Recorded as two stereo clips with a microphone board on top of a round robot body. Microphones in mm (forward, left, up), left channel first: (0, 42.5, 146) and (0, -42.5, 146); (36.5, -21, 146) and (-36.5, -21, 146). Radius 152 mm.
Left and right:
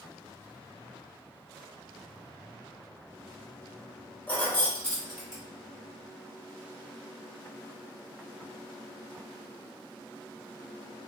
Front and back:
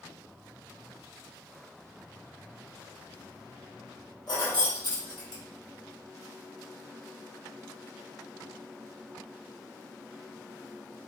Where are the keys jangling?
20° left, 1.5 m; by 5.4 s 5° right, 1.7 m.